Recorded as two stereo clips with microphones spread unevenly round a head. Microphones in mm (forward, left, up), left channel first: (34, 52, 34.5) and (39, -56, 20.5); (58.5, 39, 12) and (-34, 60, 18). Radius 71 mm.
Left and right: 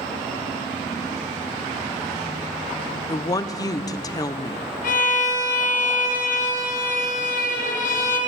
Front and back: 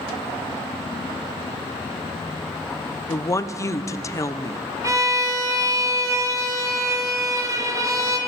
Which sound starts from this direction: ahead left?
A woman speaking, at 3.1 s.